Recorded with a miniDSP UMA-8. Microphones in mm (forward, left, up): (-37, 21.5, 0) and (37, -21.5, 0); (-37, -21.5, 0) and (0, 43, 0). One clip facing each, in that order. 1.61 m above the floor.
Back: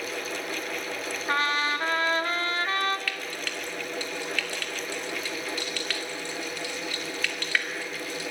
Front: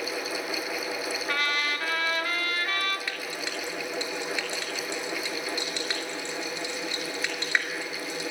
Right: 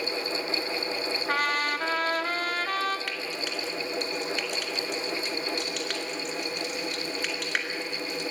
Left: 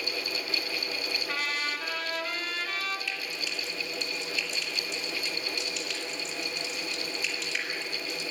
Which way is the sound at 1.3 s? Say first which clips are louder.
Back 5 dB, right 7 dB; 155° right.